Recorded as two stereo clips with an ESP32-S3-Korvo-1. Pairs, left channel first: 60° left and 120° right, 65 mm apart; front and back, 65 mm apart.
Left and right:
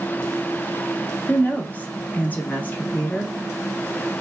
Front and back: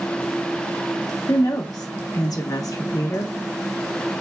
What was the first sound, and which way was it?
A woman speaking, straight ahead.